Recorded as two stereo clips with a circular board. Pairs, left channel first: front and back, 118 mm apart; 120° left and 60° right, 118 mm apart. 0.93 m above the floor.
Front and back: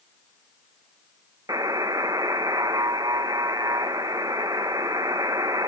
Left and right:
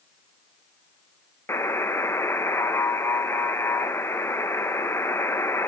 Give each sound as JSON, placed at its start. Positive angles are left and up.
{"t": 1.5, "sound": "a buzzer", "azimuth_deg": 170, "distance_m": 1.0}